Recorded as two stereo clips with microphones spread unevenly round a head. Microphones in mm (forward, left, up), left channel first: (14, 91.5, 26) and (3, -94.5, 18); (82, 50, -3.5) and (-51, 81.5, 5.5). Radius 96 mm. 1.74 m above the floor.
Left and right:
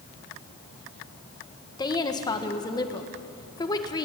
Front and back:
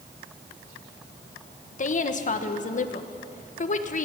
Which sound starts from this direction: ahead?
A woman speaking, at 1.8 s.